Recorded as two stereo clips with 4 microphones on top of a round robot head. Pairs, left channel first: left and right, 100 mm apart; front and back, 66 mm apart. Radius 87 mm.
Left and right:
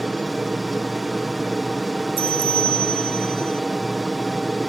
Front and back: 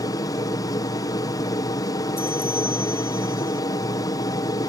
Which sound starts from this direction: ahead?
An aircraft, at 0.0 s.